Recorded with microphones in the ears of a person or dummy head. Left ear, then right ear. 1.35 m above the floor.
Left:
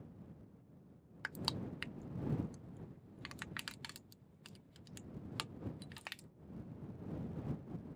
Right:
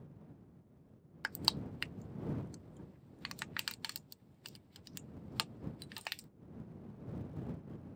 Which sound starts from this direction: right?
Crushing, at 1.2 s.